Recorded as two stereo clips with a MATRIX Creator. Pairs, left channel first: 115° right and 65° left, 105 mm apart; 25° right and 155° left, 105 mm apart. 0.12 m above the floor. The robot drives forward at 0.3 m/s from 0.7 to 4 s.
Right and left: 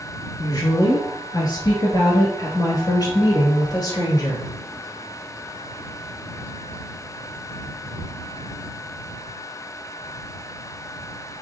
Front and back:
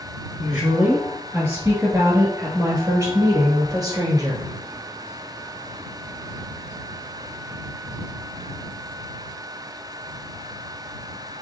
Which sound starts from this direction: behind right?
A woman speaking, at 0.4 s.